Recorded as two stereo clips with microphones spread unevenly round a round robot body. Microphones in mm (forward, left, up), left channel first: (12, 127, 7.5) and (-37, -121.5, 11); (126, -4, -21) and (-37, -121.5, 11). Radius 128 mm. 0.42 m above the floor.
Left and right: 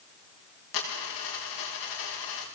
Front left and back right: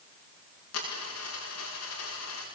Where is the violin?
No violin in this recording.